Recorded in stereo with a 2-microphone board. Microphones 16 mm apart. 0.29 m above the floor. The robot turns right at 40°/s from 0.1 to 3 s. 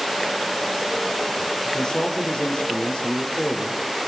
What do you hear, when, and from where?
1.6 s a man speaking: 40° left, 5.5 m; by 3.8 s 95° left, 5.5 m